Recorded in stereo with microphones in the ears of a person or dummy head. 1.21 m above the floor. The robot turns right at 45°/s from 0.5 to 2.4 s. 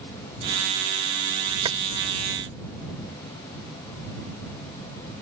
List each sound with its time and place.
1.6 s keys jangling: 25° right (ahead or behind); by 1.8 s 20° right (ahead or behind)